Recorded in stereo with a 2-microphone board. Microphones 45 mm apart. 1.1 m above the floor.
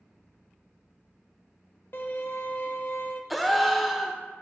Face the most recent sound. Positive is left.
turn(degrees=0)  # may be behind; listen again after turning